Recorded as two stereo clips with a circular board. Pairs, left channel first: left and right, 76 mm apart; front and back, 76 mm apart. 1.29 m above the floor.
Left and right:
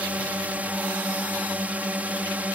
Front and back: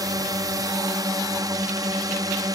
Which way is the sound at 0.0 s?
160° right.